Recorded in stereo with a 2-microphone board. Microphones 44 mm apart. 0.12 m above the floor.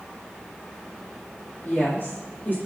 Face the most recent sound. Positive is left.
turn(degrees=45)  # may be behind; listen again after turning